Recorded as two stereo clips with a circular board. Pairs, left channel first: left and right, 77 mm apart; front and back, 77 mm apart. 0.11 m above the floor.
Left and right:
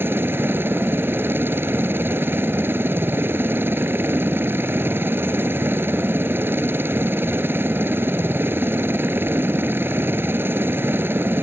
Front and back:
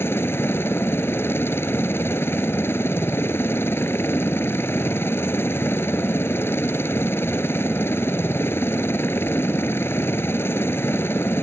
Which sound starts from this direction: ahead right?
A helicopter, at 0.0 s.